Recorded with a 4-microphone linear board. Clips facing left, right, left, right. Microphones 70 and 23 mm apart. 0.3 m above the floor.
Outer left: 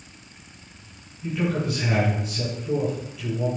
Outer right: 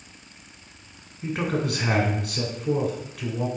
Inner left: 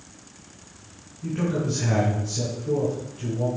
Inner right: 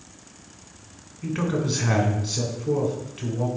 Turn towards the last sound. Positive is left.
turn(degrees=-65)  # may be behind; listen again after turning